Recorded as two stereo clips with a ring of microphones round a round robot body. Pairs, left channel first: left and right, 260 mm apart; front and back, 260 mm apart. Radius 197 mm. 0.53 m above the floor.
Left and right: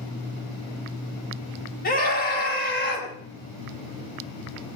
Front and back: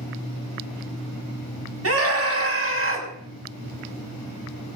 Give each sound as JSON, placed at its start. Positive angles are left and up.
{"t": 1.8, "sound": "a scream", "azimuth_deg": 150, "distance_m": 5.5}